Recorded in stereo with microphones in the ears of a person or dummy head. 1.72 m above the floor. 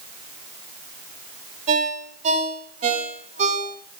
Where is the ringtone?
40° right (ahead or behind), 6 m.